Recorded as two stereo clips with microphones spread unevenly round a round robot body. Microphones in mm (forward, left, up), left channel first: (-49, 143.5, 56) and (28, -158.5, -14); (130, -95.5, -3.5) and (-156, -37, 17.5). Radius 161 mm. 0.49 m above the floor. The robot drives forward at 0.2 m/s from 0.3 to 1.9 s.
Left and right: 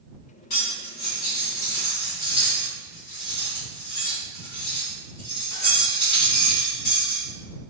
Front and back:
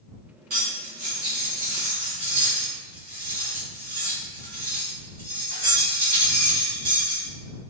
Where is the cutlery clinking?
120° left, 2.0 m; by 7.3 s 125° left, 2 m.